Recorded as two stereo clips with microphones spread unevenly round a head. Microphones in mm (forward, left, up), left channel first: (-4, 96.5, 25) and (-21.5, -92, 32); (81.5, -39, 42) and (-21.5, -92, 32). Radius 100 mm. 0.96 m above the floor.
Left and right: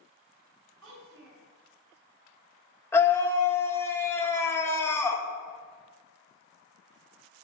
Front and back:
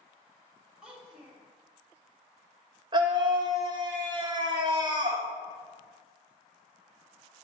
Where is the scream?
160° left, 1.3 m.